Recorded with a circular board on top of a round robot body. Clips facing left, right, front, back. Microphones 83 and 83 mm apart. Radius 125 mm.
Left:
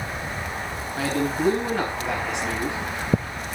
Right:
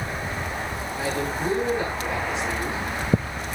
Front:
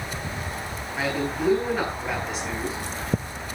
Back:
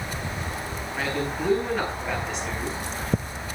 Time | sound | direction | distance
1.0 | a man speaking | 85° left | 6 m